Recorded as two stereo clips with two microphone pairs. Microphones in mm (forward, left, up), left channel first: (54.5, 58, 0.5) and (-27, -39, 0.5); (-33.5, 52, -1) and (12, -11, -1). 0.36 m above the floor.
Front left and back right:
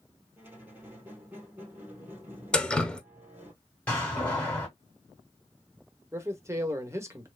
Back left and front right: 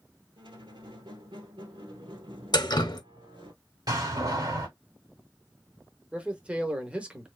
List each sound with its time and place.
0.4 s a squeak: 55° right, 1.4 m
2.5 s dripping: 130° left, 0.7 m
3.9 s a door slam: 25° right, 2 m
6.1 s a man speaking: 105° right, 0.9 m